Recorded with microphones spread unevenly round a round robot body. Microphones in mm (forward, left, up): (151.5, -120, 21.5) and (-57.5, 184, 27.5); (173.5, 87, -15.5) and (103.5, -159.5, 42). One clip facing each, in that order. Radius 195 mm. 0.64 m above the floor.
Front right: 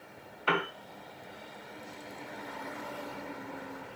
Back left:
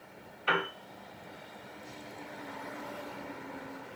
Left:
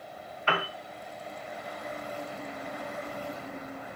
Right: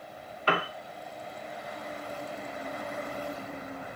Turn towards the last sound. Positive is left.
turn(degrees=-50)